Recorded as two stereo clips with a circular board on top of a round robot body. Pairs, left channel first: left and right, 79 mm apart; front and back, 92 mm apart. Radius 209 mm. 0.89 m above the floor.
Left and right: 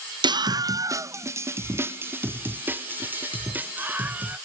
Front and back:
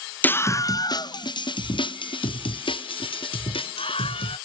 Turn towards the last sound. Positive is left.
turn(degrees=-20)